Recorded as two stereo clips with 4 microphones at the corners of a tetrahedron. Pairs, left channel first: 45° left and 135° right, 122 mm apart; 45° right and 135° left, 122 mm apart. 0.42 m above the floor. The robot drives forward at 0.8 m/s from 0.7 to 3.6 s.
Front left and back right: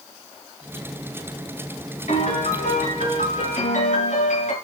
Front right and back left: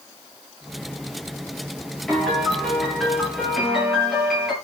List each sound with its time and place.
2.1 s a piano: 40° left, 8.5 m; by 4.5 s 45° left, 7.5 m